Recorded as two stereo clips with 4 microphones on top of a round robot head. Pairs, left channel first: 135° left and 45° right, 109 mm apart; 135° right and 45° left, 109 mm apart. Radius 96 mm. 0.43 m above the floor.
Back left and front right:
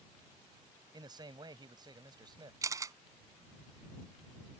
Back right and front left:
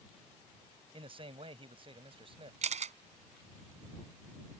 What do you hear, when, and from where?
0.9 s a man speaking: 5° left
2.6 s a camera shutter: 15° left